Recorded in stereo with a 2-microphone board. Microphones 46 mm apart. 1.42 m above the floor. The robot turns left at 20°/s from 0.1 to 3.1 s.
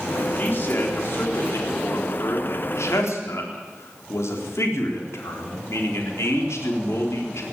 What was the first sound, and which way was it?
A man speaking, 140° left.